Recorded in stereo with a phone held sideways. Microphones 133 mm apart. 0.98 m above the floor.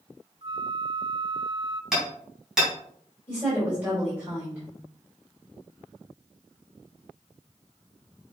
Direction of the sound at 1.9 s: 5° right (ahead or behind).